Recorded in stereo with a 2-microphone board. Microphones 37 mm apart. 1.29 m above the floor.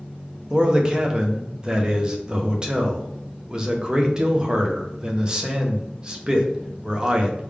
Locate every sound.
0.5 s a man speaking: 20° right (ahead or behind), 0.7 m